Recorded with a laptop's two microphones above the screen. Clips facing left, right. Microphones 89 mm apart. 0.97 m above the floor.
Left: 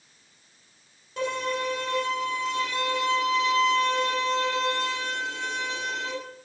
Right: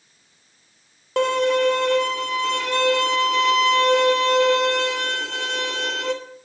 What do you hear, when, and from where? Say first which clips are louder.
1.2 s a violin: right 10 dB; 75° right (ahead or behind), 3 m